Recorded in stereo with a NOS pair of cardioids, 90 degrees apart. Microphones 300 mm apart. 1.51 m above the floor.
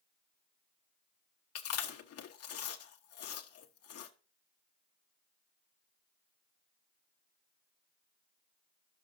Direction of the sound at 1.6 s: 55° left.